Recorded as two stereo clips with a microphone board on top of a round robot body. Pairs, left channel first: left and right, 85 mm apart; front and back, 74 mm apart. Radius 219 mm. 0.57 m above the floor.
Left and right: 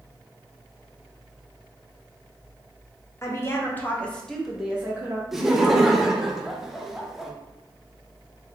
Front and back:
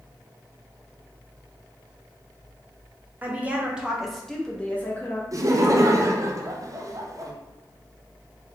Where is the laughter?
175° right, 0.9 m.